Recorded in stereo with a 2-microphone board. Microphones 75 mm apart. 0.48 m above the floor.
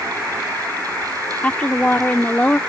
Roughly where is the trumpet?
No trumpet in this recording.